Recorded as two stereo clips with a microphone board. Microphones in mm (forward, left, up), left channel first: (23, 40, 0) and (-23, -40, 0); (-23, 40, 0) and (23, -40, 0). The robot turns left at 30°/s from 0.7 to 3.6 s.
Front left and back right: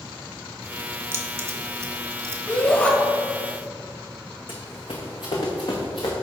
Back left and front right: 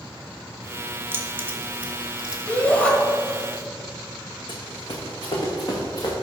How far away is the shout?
About 0.9 m.